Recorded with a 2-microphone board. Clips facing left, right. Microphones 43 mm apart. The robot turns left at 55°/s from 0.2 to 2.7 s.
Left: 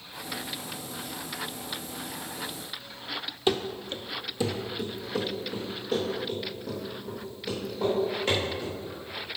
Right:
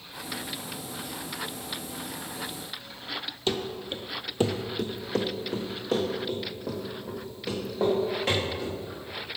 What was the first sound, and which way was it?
Running footsteps, 15° left (ahead or behind).